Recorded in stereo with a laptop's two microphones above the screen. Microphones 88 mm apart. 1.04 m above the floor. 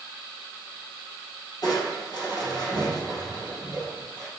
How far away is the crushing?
About 2.5 m.